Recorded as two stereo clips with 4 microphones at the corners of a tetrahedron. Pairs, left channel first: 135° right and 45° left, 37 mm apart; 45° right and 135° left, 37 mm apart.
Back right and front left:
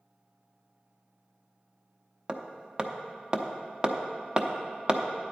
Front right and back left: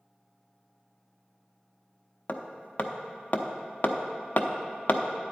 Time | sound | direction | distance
2.3 | hammering | 15° right | 0.7 m